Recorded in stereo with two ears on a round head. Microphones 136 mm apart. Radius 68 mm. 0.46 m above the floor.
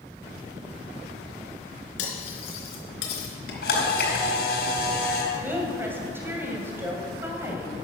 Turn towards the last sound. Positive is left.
turn(degrees=-15)  # may be behind; listen again after turning